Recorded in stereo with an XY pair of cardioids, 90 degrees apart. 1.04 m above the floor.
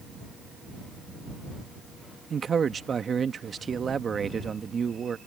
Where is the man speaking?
45° right.